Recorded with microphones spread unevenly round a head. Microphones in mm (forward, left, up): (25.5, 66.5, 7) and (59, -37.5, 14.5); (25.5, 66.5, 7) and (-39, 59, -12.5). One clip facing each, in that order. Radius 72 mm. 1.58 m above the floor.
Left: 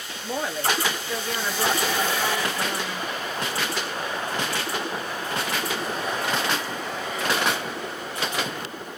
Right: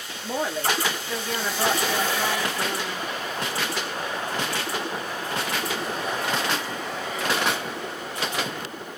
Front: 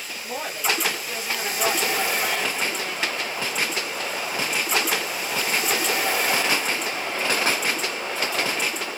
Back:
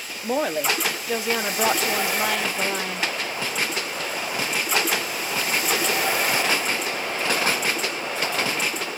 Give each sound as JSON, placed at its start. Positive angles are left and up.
{"t": 0.2, "sound": "a woman speaking", "azimuth_deg": -160, "distance_m": 1.0}